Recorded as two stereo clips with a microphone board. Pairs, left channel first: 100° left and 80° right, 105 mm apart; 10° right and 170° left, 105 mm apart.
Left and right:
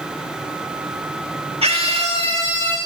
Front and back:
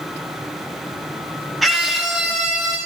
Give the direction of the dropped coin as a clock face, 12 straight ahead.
I don't hear a dropped coin.